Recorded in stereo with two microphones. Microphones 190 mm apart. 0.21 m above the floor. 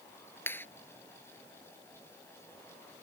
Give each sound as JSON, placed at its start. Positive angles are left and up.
{"t": 0.5, "sound": "a clap", "side_deg": 10}